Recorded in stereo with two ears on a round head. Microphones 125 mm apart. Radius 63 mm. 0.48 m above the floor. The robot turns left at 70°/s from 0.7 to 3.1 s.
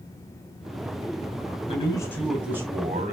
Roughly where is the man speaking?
Ahead left.